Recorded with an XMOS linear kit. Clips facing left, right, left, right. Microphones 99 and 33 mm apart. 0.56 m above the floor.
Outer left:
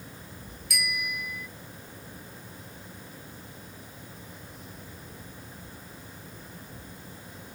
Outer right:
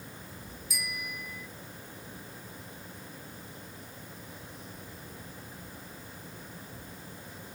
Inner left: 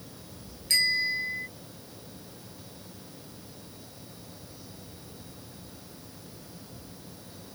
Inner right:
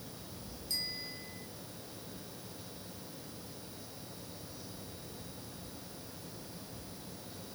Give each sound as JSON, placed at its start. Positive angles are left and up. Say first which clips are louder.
{"t": 0.7, "sound": "a bicycle bell", "louder": "outer left 7 dB, inner left 16 dB", "side_deg": 75}